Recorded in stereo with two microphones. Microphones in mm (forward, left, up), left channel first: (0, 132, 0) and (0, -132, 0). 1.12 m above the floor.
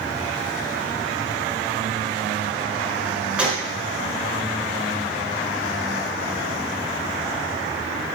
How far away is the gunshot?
About 1.1 m.